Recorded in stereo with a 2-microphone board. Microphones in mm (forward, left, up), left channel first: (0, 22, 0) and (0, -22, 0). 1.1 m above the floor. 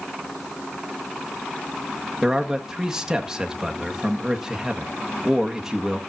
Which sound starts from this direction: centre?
A man speaking, at 2.2 s.